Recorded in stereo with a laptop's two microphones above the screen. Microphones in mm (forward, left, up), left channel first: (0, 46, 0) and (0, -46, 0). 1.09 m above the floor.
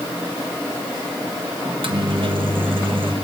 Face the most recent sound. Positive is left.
turn(degrees=-65)  # may be behind; listen again after turning